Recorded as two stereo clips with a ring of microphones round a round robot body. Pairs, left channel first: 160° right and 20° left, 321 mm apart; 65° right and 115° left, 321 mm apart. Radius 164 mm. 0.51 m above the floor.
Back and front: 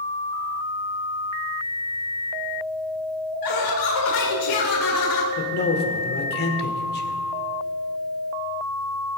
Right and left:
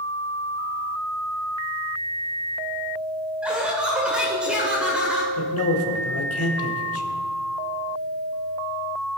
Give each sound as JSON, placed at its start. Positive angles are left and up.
{"t": 3.4, "sound": "laughter", "azimuth_deg": -160, "distance_m": 1.5}
{"t": 5.4, "sound": "a man speaking", "azimuth_deg": -105, "distance_m": 1.5}